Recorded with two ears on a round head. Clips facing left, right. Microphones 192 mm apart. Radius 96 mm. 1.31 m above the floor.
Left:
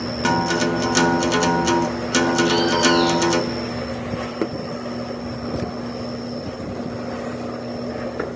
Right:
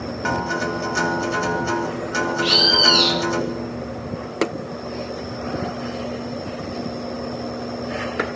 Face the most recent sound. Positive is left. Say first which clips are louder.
# left 4 dB
turn(degrees=-55)  # may be behind; listen again after turning